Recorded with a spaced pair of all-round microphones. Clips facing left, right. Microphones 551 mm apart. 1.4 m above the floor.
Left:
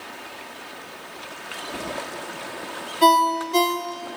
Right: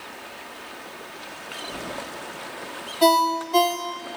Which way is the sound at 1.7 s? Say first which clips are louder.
Left 3 dB; 60° right (ahead or behind).